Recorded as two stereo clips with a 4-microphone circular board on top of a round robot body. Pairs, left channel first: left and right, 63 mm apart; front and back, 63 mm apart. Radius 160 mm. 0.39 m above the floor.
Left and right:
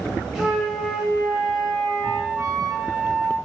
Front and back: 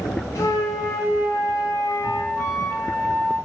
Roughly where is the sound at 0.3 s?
Ahead.